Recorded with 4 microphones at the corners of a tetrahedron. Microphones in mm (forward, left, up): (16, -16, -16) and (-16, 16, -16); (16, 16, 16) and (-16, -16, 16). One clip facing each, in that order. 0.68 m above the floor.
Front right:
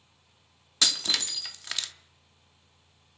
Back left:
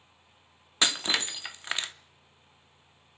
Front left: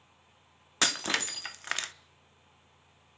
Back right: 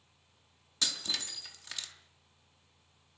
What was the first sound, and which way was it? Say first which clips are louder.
Breaking glass: back left 2 dB, front left 8 dB; 75° left.